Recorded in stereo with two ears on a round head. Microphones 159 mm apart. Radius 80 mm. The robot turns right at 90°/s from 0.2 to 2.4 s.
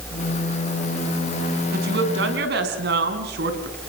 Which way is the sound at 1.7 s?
130° right.